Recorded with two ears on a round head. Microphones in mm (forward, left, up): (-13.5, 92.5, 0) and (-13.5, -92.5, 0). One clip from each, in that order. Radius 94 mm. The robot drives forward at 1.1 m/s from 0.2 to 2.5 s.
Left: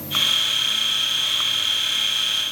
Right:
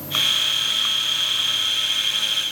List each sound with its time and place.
Only background noise.